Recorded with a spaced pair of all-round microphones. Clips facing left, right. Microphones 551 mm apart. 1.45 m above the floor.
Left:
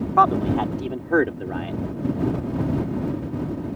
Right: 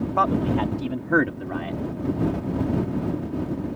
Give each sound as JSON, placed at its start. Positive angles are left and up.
{"t": 0.2, "sound": "a man speaking", "side_deg": -55}